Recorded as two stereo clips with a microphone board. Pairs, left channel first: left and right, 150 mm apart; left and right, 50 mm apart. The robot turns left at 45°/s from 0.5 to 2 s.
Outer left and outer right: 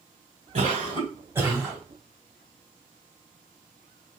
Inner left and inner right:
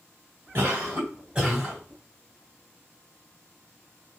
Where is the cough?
120° right, 2.5 m; by 1.8 s straight behind, 2.5 m.